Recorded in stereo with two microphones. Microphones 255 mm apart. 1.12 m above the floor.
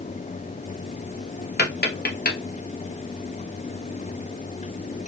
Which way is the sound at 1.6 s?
40° left (ahead or behind).